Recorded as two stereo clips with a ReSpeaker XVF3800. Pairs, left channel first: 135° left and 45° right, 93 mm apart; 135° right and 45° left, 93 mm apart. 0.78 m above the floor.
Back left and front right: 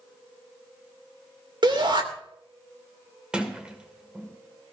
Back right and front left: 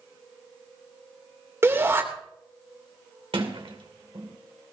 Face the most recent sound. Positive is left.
turn(degrees=35)